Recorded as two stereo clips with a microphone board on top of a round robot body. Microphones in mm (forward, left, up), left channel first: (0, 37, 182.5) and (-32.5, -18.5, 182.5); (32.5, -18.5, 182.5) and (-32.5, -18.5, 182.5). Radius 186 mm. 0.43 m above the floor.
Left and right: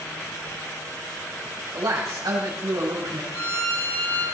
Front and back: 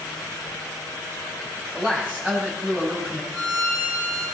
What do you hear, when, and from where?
1.7 s a man speaking: 105° right, 3.5 m
3.3 s a violin: 95° left, 5 m